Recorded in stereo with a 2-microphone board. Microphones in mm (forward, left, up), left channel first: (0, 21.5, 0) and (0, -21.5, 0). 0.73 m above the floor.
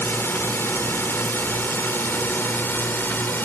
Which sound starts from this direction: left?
A drone, at 0.0 s.